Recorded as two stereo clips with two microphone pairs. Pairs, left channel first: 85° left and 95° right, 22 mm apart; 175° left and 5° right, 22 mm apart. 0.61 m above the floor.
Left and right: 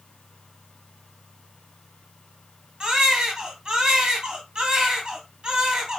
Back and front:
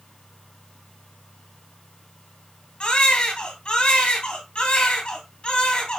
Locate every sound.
2.8 s a baby crying: 155° right, 2.5 m